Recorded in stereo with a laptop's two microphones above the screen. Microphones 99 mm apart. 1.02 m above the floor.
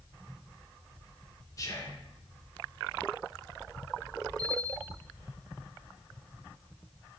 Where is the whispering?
35° left (ahead or behind), 1.1 m.